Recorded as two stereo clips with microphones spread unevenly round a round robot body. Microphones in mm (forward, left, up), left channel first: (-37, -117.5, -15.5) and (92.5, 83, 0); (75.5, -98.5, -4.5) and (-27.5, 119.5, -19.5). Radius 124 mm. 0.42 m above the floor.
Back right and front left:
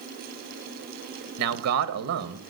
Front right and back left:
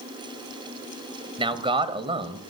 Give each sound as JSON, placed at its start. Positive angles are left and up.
{"t": 1.4, "sound": "a man speaking", "azimuth_deg": 50, "distance_m": 1.8}